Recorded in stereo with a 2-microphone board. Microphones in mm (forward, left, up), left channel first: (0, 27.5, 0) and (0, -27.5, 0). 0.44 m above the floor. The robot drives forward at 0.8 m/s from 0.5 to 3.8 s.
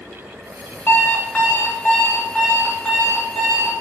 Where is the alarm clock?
35° left (ahead or behind), 0.7 m; by 3.7 s 10° left (ahead or behind), 3 m.